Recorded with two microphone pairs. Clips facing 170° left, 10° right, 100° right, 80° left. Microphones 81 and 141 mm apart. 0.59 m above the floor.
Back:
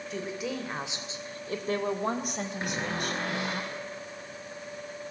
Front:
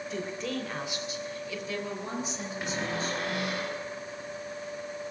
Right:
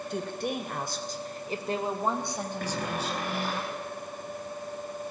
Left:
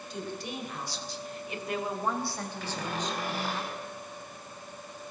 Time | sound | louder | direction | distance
0.1 | a woman speaking | back 1 dB, right 5 dB | 100° right | 3 m
2.6 | a cupboard door | front 1 dB, right 1 dB | 130° right | 8.5 m